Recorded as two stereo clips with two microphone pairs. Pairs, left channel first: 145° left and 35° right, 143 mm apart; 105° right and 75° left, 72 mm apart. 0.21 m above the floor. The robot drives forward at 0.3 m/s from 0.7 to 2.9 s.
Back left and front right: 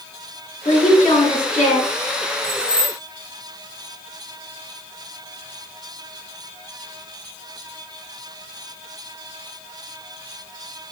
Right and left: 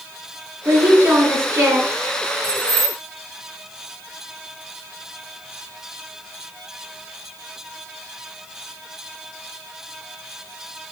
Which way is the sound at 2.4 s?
115° left.